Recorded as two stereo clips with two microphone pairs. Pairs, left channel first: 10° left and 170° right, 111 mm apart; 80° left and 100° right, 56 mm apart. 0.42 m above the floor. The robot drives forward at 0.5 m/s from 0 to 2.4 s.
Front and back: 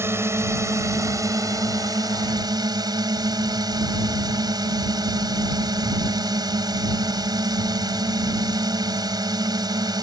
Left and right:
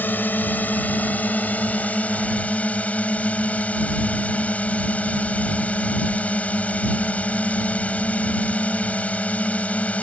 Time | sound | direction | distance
0.0 | a drone | 125° left | ?